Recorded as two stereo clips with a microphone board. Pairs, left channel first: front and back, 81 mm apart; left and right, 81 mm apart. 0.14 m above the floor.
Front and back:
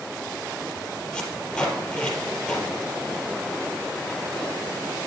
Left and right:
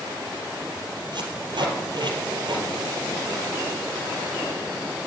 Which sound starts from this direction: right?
Tape being pulled, at 1.1 s.